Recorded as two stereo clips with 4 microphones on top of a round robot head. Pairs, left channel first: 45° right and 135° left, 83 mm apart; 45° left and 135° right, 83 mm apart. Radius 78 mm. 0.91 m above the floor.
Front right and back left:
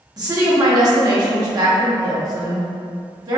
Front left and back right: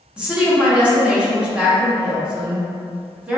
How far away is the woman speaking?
About 1.0 m.